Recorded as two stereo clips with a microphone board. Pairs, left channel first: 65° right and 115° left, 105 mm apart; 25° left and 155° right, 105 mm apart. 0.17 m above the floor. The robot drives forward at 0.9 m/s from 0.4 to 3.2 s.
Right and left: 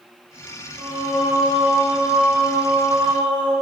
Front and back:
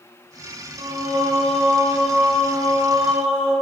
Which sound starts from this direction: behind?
Singing, at 0.8 s.